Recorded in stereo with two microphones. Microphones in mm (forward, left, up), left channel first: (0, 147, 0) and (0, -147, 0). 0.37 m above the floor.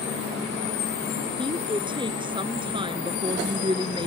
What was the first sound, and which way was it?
A woman speaking, 15° right (ahead or behind).